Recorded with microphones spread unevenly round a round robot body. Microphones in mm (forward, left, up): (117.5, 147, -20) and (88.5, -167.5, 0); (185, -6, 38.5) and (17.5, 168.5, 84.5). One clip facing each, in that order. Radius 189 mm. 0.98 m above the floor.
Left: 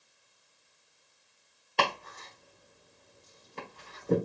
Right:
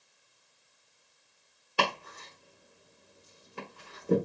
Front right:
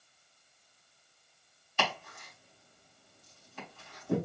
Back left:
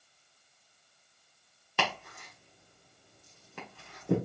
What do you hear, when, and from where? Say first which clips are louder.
1.8 s chopping: even, back left 1 dB; 175° right, 1.1 m